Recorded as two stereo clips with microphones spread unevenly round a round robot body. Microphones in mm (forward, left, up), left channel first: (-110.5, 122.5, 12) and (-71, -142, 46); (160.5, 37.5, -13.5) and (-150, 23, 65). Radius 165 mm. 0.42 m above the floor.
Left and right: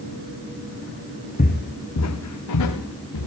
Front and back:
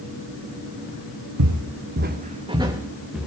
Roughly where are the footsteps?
Behind.